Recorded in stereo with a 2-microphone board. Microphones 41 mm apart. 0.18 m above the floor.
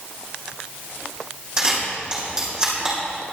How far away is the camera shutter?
About 5.5 m.